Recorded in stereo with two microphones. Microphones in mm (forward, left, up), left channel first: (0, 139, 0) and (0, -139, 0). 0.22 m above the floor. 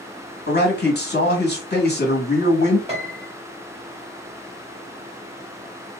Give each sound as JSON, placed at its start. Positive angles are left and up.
{"t": 0.5, "sound": "a man speaking", "side_deg": 40, "distance_m": 1.2}
{"t": 2.9, "sound": "a piano", "side_deg": -25, "distance_m": 1.6}